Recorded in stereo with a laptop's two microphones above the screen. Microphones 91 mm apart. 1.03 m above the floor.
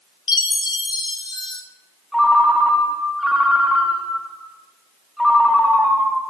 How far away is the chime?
About 0.5 m.